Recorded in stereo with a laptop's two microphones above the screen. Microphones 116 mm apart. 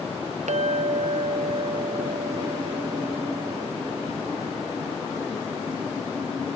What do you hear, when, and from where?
0.5 s a clink: 80° right